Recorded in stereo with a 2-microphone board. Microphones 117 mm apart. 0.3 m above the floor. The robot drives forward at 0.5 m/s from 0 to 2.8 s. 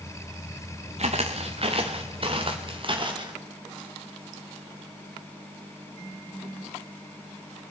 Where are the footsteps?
60° right (ahead or behind), 1.4 m; by 3.4 s 40° right (ahead or behind), 2.5 m.